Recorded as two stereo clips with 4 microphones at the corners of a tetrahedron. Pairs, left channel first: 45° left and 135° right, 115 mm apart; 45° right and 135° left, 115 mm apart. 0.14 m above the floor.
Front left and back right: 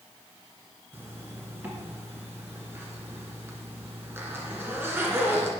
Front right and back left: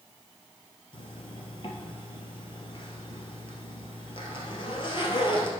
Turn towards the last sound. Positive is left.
turn(degrees=-70)